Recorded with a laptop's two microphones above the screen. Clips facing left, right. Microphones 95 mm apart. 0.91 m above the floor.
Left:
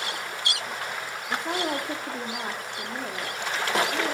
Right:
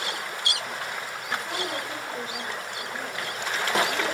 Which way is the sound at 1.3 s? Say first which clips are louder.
Left 3 dB; 55° left (ahead or behind).